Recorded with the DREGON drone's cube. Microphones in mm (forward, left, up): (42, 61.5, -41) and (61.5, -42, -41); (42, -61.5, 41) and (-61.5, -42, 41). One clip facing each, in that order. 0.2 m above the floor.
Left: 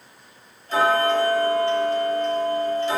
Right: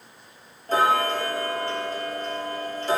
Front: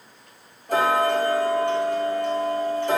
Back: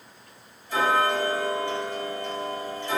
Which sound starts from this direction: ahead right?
Ticking, at 0.7 s.